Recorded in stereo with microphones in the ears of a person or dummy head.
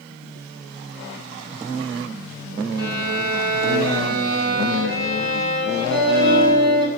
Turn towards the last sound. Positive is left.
turn(degrees=-60)  # may be behind; listen again after turning